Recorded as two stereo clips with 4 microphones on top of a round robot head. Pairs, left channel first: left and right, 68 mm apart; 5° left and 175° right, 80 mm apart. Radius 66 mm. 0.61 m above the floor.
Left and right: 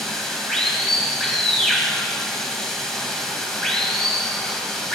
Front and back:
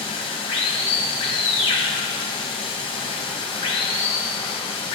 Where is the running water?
5° left, 1.2 m.